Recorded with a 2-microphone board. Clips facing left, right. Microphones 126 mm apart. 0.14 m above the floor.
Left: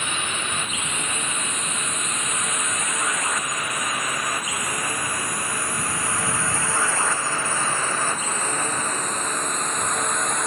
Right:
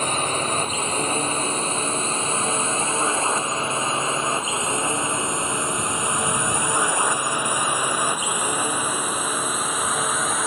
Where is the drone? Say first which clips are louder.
Right 6 dB; 40° right (ahead or behind); by 10.5 s 5° right (ahead or behind).